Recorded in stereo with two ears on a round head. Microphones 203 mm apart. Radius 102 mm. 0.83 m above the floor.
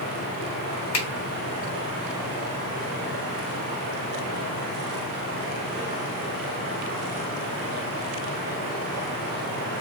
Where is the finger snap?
70° left (ahead or behind), 1.7 m.